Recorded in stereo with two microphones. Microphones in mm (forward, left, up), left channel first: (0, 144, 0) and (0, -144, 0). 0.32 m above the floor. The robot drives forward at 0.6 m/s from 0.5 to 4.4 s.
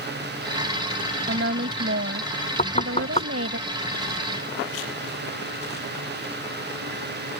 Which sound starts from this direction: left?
Knocking, at 2.6 s.